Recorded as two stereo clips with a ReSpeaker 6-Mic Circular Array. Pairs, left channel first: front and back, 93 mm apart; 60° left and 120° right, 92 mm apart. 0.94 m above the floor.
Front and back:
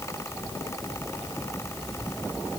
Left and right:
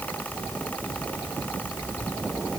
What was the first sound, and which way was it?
Only background noise.